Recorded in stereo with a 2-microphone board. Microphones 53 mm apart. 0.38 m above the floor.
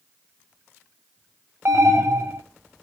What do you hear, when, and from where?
1.6 s an alarm: 50° right (ahead or behind), 1.3 m